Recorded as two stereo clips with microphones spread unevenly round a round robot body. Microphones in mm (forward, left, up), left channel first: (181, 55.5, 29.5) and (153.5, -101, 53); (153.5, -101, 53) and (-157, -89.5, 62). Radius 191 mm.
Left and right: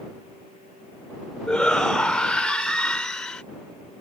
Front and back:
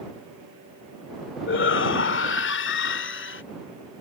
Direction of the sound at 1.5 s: 5° left.